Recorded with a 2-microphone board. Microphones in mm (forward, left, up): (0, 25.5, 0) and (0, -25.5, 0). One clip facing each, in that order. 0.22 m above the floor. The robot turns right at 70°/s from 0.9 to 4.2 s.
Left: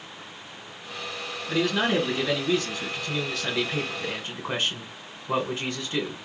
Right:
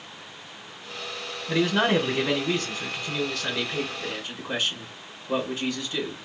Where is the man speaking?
130° right, 1.9 m; by 6.3 s 60° left, 1.9 m.